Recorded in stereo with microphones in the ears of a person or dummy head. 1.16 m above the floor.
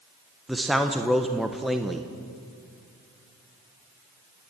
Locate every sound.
0.5 s a man speaking: centre (ahead or behind), 1.0 m